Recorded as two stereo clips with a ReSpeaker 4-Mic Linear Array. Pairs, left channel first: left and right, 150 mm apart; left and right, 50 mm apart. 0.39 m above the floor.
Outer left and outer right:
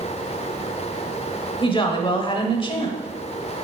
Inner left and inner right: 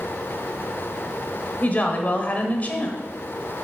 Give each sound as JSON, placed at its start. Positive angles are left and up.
{"t": 1.6, "sound": "a woman speaking", "side_deg": 35, "distance_m": 1.2}